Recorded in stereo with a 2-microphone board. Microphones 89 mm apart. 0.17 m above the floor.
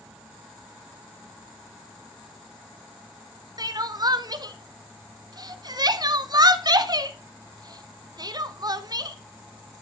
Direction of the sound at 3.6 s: 45° right (ahead or behind).